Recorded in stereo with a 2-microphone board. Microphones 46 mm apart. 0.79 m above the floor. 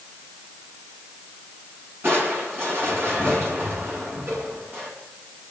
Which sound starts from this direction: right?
Crushing, at 2.0 s.